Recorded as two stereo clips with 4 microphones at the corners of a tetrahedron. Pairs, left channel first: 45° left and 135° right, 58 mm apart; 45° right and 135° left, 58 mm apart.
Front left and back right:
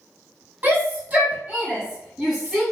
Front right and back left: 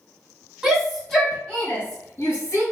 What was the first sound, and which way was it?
A shout, 155° right.